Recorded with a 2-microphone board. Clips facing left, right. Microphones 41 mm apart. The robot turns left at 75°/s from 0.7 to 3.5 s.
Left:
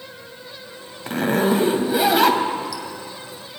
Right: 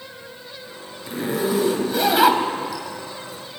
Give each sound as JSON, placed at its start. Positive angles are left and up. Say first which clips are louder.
{"t": 1.1, "sound": "a zipper", "louder": "left 4 dB", "side_deg": 65, "distance_m": 1.7}